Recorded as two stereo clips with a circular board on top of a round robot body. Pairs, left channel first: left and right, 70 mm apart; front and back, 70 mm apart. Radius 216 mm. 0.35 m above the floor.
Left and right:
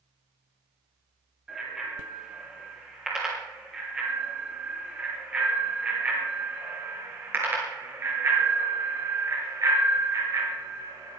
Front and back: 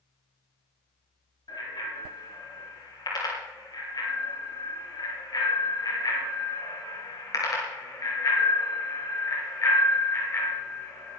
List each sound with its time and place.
1.5 s a bicycle bell: 5° right, 10 m; by 11.2 s 60° right, 6 m